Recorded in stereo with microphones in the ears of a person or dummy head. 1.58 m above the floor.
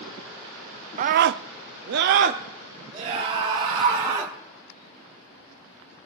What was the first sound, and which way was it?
A scream, 50° right (ahead or behind).